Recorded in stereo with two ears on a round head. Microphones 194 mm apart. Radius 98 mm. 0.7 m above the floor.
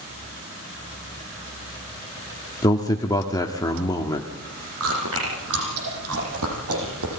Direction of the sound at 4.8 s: 80° right.